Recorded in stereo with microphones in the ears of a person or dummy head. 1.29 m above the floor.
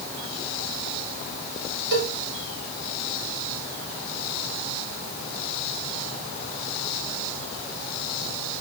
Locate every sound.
1.9 s a cowbell: 70° right (ahead or behind), 3 m